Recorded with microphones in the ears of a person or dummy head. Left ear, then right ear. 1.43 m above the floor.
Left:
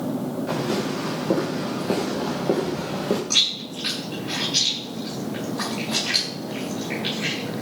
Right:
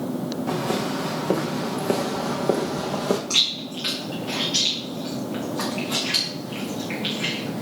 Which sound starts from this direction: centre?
Chewing, at 3.3 s.